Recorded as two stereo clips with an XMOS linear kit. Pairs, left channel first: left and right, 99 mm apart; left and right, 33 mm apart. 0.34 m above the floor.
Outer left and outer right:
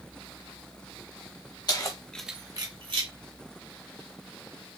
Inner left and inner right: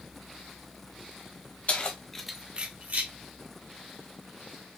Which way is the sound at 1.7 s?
45° left (ahead or behind).